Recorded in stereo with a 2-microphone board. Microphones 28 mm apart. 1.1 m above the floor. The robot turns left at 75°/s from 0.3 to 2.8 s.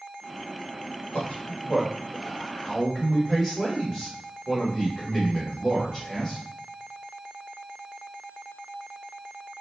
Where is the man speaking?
35° left (ahead or behind), 1.2 m; by 6.4 s 10° left (ahead or behind), 1.2 m.